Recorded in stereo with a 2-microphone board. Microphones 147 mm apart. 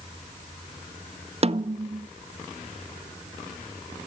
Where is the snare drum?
45° right (ahead or behind), 0.7 m.